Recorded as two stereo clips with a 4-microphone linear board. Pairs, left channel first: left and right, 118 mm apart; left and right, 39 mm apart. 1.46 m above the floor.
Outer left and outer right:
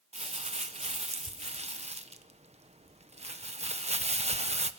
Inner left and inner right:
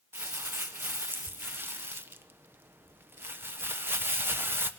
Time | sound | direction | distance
0.1 | crumpling | 65° right (ahead or behind) | 1.2 m